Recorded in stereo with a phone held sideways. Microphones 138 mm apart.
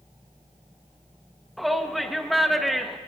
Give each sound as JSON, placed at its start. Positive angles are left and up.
{"t": 1.6, "sound": "a shout", "side_deg": 0, "distance_m": 1.3}